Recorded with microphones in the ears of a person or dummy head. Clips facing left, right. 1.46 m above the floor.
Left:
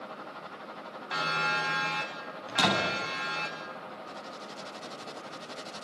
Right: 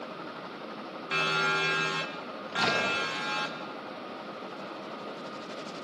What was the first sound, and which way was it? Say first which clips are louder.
A siren: right 2 dB; 35° right (ahead or behind).